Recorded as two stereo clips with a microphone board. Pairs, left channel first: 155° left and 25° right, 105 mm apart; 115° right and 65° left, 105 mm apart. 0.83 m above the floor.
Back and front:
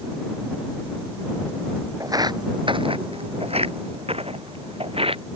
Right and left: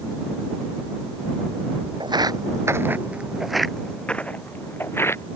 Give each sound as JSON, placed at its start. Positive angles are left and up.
{"t": 2.0, "sound": "footsteps", "azimuth_deg": 30}